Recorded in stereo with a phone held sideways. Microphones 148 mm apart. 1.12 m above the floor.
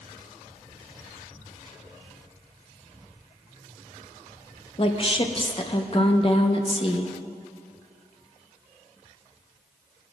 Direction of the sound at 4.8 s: 40° left (ahead or behind).